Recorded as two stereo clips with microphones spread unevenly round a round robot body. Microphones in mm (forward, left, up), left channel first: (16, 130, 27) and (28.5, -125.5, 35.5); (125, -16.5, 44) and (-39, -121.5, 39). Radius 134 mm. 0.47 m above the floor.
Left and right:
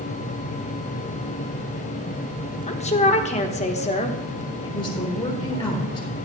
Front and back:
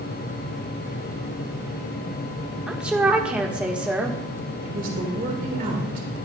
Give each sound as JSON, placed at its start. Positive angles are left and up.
{"t": 2.7, "sound": "a woman speaking", "azimuth_deg": 135, "distance_m": 1.2}
{"t": 4.6, "sound": "a woman speaking", "azimuth_deg": 165, "distance_m": 3.0}